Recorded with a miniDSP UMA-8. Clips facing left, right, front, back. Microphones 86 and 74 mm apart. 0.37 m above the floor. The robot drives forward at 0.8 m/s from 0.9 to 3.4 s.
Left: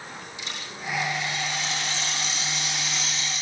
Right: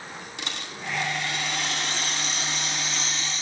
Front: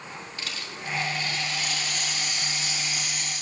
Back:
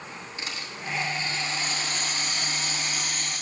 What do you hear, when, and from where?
0.4 s a rattle: 110° right, 2.5 m; by 3.4 s 140° right, 4 m